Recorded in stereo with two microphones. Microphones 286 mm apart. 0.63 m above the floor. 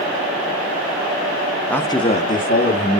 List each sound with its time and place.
1.7 s a man speaking: 5° left (ahead or behind), 0.8 m; by 3.0 s 40° left (ahead or behind), 1.6 m